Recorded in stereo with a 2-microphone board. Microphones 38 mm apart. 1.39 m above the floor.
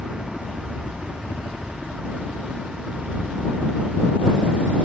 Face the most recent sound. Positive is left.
turn(degrees=45)  # may be behind; listen again after turning